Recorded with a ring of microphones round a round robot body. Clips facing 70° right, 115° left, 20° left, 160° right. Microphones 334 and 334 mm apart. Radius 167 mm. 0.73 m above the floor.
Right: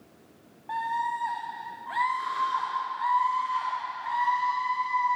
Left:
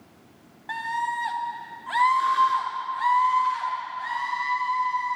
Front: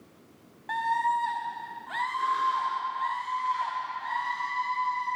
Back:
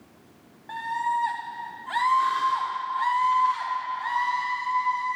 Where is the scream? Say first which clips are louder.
Even, front 1 dB; 85° left, 0.8 m; by 5.2 s 150° left, 4 m.